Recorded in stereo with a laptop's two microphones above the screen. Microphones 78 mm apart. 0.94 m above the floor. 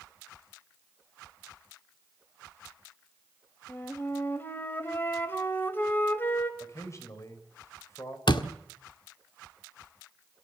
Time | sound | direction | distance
3.7 | a flute | 25° left (ahead or behind) | 1.3 m
6.6 | a man speaking | 40° left (ahead or behind) | 5.5 m
8.3 | a door slam | 70° left (ahead or behind) | 1.6 m